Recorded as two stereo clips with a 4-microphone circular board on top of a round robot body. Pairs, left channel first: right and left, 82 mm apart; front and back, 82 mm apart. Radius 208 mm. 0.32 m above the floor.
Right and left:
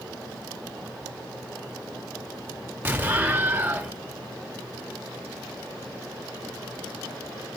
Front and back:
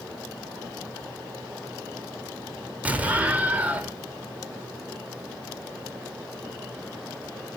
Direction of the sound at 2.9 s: 130° left.